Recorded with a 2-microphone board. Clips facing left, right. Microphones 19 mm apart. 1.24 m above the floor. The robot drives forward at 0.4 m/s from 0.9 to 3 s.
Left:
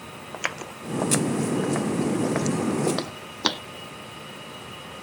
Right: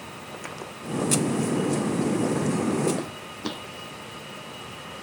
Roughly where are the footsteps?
Left.